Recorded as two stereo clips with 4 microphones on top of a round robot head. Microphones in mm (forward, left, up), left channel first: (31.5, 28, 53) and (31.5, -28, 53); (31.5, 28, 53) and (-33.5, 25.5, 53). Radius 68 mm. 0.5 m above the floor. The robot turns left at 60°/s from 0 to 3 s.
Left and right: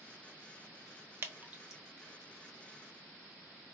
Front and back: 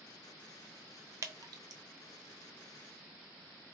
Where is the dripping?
140° right, 0.7 m; by 1.8 s 175° right, 0.7 m.